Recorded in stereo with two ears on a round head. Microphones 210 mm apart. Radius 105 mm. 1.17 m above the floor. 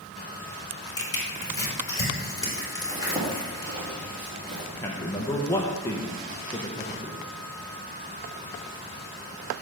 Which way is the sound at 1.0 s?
20° left (ahead or behind).